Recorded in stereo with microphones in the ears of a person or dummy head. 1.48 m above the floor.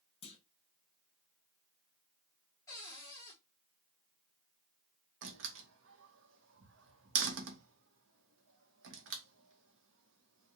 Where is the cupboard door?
15° left (ahead or behind), 2.5 m.